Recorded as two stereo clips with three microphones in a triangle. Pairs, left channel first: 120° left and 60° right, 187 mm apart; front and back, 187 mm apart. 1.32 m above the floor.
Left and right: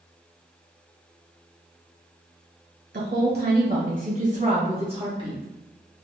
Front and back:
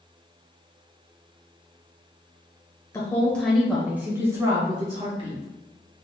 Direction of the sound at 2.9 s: 75° right.